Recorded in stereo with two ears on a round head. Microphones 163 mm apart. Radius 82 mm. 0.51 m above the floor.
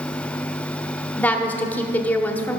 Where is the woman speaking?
10° left (ahead or behind), 0.9 m.